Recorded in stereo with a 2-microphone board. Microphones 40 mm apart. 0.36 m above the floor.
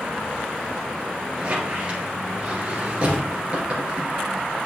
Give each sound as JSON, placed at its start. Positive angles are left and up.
{"t": 1.4, "sound": "a squeak", "side_deg": -25, "distance_m": 2.5}